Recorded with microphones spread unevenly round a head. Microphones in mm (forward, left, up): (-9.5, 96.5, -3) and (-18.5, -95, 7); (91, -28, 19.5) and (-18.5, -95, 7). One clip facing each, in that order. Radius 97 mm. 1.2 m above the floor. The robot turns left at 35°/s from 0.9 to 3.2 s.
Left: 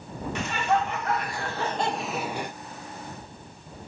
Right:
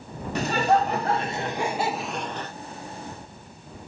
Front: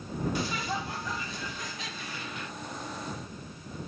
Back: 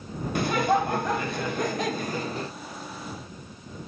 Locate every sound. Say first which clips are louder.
0.3 s laughter: right 5 dB, back 10 dB; 145° right; by 2.5 s 160° left